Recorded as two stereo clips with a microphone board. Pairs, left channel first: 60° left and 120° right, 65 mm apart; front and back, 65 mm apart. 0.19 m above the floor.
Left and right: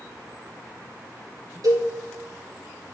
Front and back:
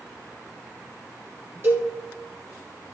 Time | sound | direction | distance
1.6 | a cowbell | 125° right | 4 m